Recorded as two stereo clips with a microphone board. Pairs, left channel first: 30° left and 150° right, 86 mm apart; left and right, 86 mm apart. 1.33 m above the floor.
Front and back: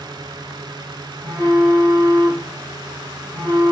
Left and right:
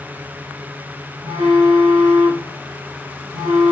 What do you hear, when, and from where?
1.2 s a phone buzzing: 45° right, 2 m